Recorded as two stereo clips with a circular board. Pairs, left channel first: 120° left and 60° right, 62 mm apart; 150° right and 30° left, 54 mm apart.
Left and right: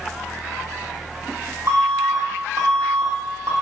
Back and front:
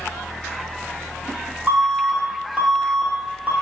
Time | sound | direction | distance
1.7 | an alarm | 30° right | 7 m